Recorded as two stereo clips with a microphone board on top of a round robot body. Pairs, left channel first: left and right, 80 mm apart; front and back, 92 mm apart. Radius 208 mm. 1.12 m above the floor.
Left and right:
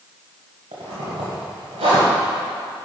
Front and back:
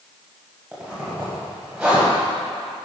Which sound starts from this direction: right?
A zipper, at 0.7 s.